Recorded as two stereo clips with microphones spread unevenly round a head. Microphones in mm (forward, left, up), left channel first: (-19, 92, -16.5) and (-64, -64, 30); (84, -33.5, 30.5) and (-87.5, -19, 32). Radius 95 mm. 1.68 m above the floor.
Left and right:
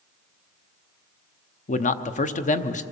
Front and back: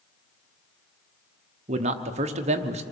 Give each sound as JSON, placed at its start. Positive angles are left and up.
{"t": 1.7, "sound": "a man speaking", "azimuth_deg": 120, "distance_m": 1.0}